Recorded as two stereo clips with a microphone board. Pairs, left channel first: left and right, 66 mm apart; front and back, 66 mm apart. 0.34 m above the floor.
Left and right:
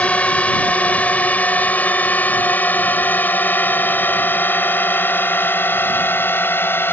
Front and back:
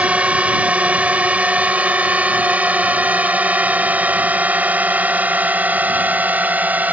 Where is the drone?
135° left; by 6.9 s 125° left.